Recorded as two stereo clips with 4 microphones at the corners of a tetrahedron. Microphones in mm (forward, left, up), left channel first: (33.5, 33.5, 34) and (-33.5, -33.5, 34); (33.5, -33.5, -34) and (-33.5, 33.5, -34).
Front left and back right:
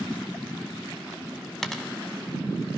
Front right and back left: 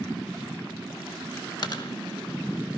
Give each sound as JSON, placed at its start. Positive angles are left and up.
{"t": 1.6, "sound": "a dropped coin", "azimuth_deg": -40, "distance_m": 0.9}